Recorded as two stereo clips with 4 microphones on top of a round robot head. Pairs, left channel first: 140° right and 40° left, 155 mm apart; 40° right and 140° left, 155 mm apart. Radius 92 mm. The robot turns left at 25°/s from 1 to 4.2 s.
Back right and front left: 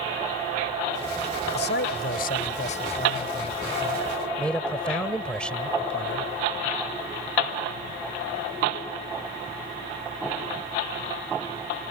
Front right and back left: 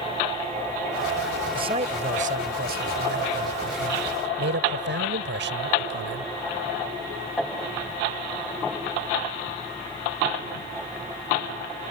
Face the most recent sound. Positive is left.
turn(degrees=135)